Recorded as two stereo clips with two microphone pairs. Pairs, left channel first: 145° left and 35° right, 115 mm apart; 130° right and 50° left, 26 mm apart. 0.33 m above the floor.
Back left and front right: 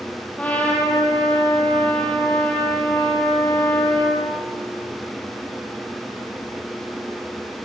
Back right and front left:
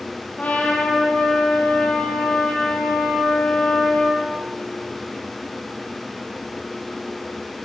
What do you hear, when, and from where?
0.4 s a trumpet: 135° right, 5 m